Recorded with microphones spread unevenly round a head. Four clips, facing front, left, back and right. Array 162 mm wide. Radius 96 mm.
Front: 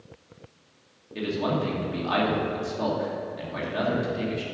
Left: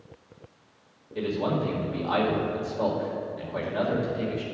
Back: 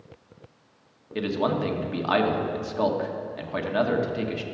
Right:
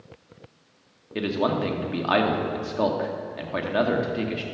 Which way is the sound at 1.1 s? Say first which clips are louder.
Right 3 dB, back 2 dB; 105° right.